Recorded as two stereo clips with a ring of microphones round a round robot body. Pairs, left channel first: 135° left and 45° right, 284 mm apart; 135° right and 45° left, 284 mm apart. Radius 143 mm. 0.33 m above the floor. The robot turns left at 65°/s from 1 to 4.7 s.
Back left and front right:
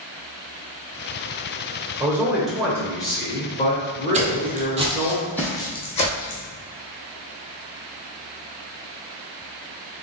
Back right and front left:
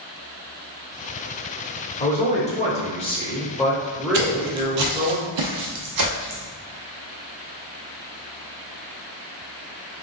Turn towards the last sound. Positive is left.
turn(degrees=75)